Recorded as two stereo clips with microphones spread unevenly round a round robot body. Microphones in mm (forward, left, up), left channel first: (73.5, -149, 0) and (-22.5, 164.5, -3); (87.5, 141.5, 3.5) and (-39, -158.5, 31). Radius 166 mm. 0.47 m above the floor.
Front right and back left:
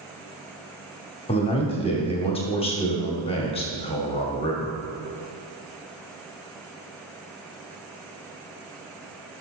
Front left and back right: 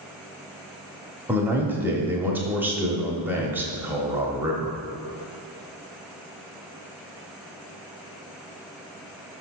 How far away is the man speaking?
About 0.9 m.